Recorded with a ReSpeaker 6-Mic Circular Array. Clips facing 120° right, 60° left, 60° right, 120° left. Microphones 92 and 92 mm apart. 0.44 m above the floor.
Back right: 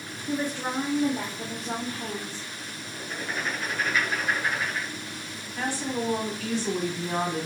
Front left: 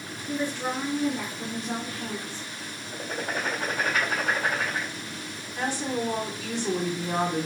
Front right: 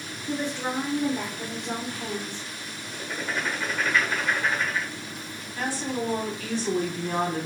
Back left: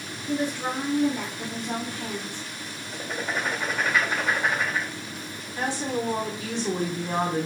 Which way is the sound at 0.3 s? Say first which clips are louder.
Even, back left 2 dB; 115° right.